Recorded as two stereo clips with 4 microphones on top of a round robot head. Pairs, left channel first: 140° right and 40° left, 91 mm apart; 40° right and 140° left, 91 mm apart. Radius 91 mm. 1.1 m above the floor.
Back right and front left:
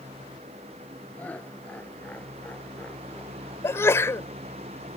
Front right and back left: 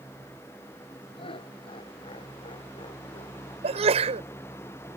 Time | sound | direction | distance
1.2 | laughter | 70° right | ?
3.6 | a sneeze | 155° left | ?